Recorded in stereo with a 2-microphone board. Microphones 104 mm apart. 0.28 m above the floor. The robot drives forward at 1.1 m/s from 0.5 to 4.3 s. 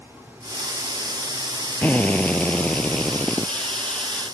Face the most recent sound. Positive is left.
turn(degrees=10)  # may be behind; listen again after turning